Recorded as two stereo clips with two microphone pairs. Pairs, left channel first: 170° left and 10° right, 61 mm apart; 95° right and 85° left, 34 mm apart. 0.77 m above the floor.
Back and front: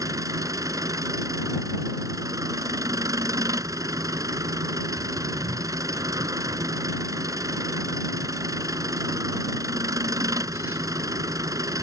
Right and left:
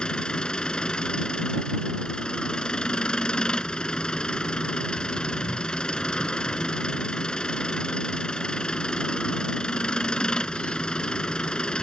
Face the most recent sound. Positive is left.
turn(degrees=-30)